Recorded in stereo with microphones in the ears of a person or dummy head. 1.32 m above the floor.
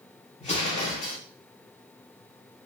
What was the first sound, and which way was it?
An explosion, 35° left (ahead or behind).